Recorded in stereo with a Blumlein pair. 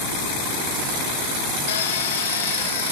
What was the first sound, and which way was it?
A drill, 60° left.